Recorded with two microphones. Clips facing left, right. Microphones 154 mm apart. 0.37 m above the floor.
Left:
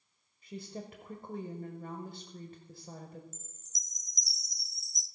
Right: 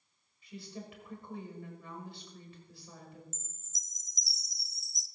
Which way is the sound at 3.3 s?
Centre (ahead or behind).